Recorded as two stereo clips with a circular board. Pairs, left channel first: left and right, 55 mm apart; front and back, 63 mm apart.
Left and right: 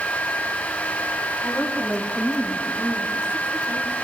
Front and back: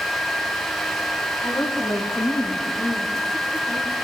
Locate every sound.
1.4 s a woman speaking: 15° left, 8 m; by 4.0 s 20° left, 10.5 m